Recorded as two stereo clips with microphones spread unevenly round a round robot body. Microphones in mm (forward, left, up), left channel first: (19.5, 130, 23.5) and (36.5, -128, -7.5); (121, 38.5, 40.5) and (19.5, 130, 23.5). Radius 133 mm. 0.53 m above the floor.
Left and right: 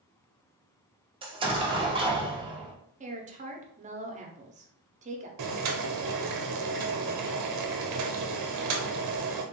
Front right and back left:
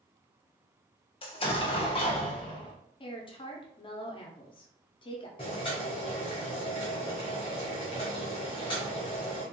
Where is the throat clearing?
I don't hear throat clearing.